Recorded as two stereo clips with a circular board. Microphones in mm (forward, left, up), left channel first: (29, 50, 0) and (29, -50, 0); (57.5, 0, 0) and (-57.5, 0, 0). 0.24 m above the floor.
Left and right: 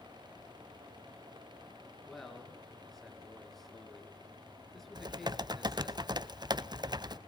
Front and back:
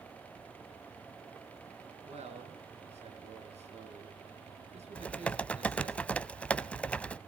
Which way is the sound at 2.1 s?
Straight behind.